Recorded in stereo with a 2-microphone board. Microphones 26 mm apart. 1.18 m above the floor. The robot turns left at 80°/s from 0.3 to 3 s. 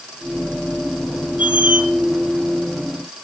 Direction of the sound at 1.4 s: 90° right.